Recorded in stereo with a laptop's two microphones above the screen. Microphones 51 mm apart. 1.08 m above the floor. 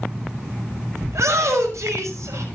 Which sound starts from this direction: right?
A shout, at 1.1 s.